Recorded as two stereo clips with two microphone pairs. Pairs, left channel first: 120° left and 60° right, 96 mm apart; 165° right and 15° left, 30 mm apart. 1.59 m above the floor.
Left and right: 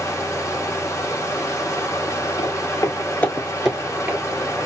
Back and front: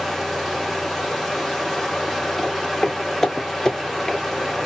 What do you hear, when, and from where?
0.0 s running water: 95° left, 1.3 m
2.4 s footsteps: 100° left, 2 m; by 4.2 s 95° right, 1.7 m